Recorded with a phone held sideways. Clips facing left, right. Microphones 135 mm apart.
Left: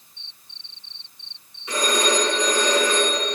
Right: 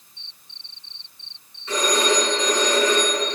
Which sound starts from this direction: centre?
A phone ringing, at 1.7 s.